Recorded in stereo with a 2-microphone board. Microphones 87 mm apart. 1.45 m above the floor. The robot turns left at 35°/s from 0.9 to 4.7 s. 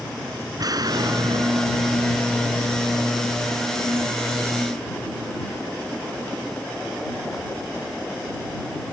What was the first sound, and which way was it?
An explosion, 45° right.